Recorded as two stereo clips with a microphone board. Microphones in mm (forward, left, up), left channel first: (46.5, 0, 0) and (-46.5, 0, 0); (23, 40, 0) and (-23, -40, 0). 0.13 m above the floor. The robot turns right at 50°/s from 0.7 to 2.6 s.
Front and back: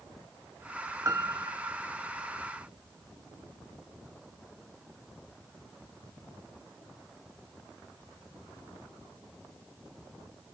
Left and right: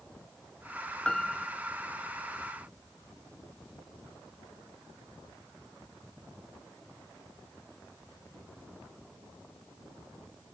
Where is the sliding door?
No sliding door in this recording.